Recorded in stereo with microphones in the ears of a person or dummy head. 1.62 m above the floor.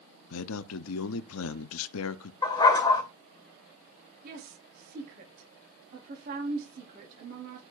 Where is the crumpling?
No crumpling in this recording.